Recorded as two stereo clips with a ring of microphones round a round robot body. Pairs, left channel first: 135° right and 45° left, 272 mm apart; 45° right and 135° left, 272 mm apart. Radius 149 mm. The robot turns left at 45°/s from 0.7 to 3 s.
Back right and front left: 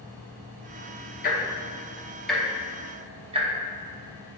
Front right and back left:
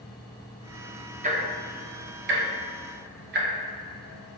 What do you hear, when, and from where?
1.2 s ticking: 175° right, 0.8 m; by 3.5 s 105° left, 0.8 m